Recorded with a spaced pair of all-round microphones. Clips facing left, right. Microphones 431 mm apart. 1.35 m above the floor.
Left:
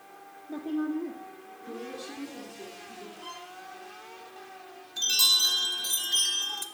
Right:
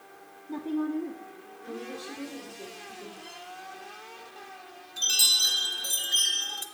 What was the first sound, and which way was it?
A woman speaking, 15° right (ahead or behind).